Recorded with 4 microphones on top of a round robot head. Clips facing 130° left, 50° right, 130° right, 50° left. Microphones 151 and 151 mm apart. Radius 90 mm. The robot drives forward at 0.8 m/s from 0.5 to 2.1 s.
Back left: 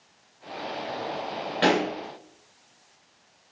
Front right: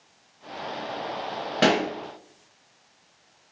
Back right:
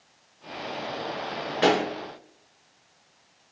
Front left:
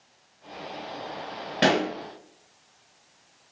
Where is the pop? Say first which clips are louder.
Front right 1 dB, even; straight ahead, 1.6 m.